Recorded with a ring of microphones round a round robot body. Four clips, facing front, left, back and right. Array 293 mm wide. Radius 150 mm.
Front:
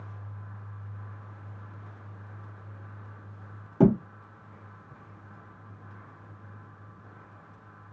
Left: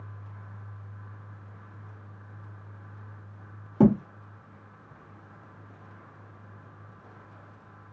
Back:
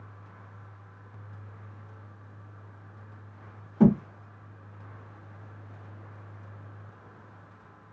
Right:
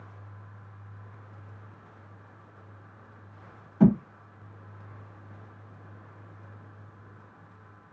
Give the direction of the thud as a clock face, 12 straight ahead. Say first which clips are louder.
Left 1 dB, back 1 dB; 10 o'clock.